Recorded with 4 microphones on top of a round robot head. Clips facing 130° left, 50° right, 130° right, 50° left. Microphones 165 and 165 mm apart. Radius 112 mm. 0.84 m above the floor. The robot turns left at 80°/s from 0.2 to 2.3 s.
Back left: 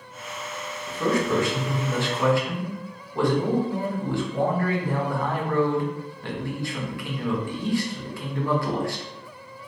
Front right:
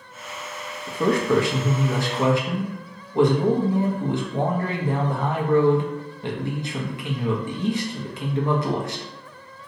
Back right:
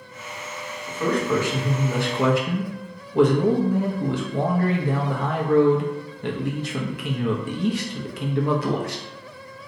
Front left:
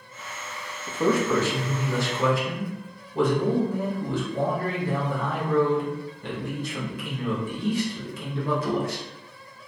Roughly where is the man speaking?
Ahead.